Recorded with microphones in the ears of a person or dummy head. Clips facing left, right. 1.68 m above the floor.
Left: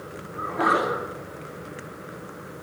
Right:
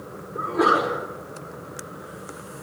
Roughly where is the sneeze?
Right.